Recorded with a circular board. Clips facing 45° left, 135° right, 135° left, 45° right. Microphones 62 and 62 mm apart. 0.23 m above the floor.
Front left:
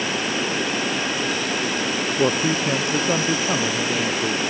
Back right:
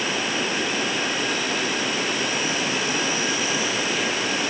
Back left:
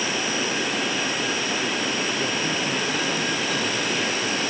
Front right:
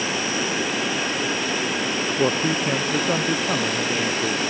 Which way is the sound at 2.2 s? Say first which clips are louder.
Front left 5 dB, front right 4 dB; 5° left.